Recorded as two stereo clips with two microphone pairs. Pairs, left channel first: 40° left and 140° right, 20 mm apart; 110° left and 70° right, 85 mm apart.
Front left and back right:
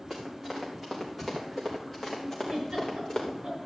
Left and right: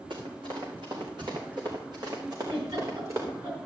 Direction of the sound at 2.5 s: 95° right.